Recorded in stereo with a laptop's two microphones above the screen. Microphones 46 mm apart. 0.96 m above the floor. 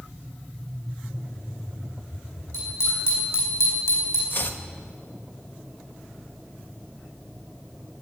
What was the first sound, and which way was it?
A bicycle bell, 80° left.